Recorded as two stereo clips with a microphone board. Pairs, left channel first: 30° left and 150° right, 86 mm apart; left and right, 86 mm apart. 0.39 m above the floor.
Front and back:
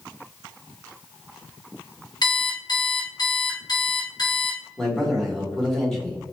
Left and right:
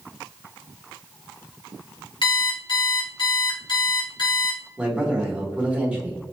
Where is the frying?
No frying in this recording.